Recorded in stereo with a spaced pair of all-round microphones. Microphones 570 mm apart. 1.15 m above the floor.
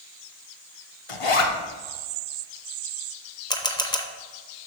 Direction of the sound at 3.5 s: 10° left (ahead or behind).